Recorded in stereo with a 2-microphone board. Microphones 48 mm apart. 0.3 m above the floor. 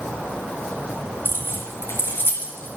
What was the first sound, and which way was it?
Keys jangling, 50° left (ahead or behind).